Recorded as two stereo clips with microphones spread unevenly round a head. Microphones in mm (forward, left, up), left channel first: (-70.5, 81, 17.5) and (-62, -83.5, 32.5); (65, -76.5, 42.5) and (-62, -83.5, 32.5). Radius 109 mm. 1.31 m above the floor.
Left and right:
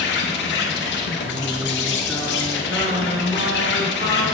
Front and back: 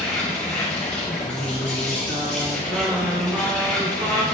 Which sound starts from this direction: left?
An insect, at 0.0 s.